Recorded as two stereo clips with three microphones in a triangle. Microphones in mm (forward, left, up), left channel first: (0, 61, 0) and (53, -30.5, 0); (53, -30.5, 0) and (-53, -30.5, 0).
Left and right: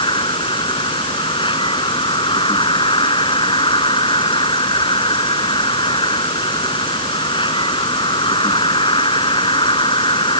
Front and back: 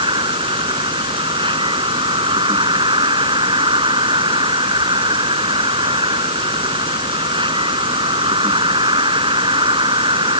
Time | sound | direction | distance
0.0 | an insect | 150° left | ?